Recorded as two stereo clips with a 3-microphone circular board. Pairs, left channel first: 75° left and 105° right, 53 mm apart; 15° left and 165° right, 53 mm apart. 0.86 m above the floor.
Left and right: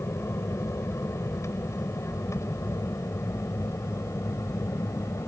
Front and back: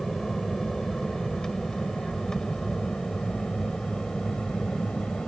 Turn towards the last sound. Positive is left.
turn(degrees=90)